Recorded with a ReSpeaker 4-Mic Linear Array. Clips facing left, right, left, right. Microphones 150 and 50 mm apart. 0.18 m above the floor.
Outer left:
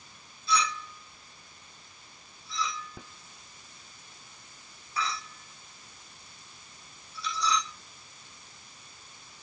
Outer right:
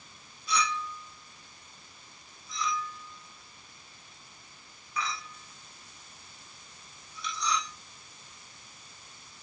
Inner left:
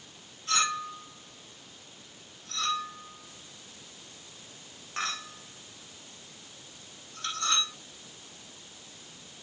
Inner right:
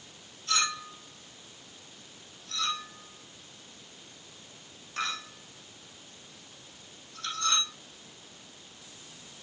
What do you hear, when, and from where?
0.5 s a clink: 35° left (ahead or behind), 5 m